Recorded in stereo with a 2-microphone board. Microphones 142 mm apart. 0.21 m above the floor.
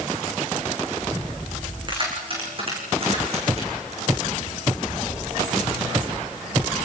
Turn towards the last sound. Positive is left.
turn(degrees=-50)  # may be behind; listen again after turning